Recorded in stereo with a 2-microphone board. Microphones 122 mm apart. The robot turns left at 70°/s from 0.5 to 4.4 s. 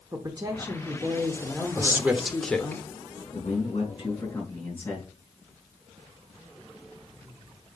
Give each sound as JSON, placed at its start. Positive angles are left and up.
{"t": 0.1, "sound": "a woman speaking", "side_deg": -30, "distance_m": 0.9}
{"t": 1.8, "sound": "a man speaking", "side_deg": -20, "distance_m": 1.0}
{"t": 3.3, "sound": "a man speaking", "azimuth_deg": 90, "distance_m": 3.5}